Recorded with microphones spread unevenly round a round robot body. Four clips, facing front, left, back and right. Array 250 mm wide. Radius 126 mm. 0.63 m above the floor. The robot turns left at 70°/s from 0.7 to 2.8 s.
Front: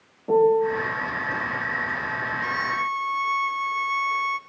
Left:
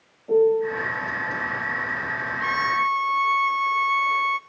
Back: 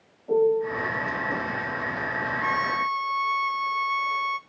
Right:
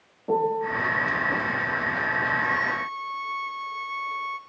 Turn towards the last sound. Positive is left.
turn(degrees=75)